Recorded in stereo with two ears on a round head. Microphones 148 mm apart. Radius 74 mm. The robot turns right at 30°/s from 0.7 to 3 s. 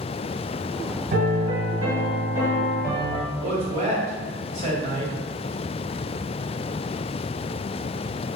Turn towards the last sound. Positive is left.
turn(degrees=-45)  # may be behind; listen again after turning